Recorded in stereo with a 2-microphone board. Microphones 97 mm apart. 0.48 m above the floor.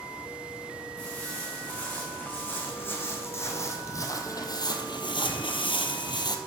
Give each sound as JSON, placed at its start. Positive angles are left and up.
{"t": 1.0, "sound": "footsteps", "side_deg": 15, "distance_m": 3.0}